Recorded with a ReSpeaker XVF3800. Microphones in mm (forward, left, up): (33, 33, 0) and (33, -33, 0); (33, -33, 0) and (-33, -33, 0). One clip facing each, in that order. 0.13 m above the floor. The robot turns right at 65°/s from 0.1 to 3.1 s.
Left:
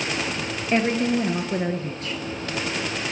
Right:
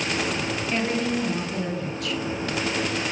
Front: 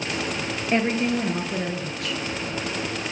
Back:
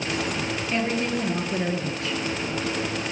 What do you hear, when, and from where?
0.7 s a woman speaking: 45° left, 1.7 m; by 2.2 s 140° left, 1.7 m